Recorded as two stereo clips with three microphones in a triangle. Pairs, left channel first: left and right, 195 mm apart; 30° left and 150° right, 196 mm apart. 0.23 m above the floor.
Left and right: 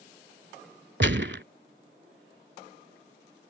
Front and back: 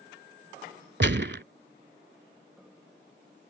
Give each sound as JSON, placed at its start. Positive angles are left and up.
{"t": 1.0, "sound": "a gunshot", "azimuth_deg": -120}